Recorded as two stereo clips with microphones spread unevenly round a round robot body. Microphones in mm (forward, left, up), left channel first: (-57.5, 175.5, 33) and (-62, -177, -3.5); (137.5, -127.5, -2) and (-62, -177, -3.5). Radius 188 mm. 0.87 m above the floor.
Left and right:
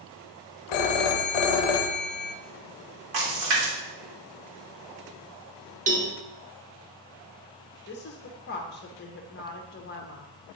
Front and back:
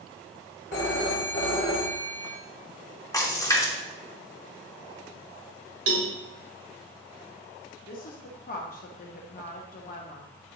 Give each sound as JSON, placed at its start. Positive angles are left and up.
{"t": 0.7, "sound": "a phone ringing", "azimuth_deg": 70, "distance_m": 0.7}
{"t": 3.1, "sound": "a splash", "azimuth_deg": -60, "distance_m": 2.5}
{"t": 5.9, "sound": "a cowbell", "azimuth_deg": -160, "distance_m": 1.5}
{"t": 7.9, "sound": "a woman speaking", "azimuth_deg": 35, "distance_m": 0.8}